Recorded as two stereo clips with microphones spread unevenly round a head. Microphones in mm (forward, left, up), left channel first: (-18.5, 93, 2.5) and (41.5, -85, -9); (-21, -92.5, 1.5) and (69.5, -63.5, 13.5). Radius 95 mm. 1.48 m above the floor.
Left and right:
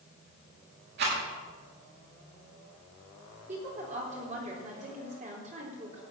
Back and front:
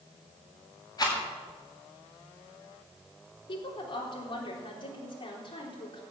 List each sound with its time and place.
1.0 s a rattle: 110° right, 8.5 m
3.5 s a woman speaking: 125° right, 4 m